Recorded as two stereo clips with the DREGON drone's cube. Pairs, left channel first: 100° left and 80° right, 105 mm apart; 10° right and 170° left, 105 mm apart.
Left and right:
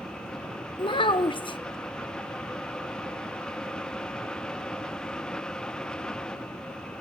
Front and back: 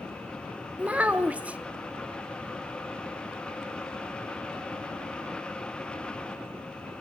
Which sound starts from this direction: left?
A child speaking, at 0.8 s.